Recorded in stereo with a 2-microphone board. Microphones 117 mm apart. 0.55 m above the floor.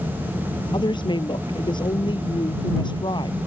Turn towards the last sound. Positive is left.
turn(degrees=45)  # may be behind; listen again after turning